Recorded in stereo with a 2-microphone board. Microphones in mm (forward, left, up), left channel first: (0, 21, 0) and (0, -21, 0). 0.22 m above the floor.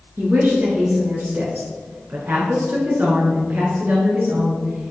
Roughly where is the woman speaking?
Right.